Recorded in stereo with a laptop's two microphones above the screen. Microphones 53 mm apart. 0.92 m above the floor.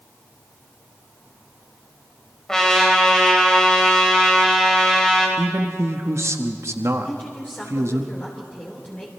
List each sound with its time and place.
2.5 s a trumpet: 10° left (ahead or behind), 2.5 m
5.4 s a man speaking: 60° right (ahead or behind), 1.2 m
7.0 s a woman speaking: 30° left (ahead or behind), 3 m